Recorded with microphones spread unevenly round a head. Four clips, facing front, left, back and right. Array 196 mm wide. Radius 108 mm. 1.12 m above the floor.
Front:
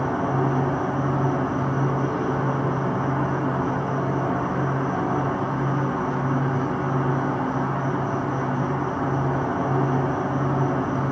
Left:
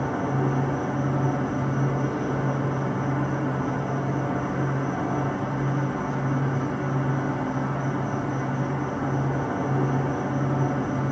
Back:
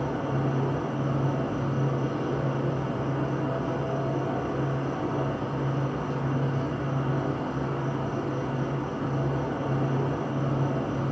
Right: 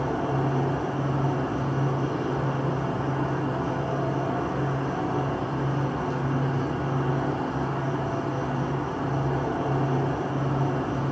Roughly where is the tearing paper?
I don't hear tearing paper.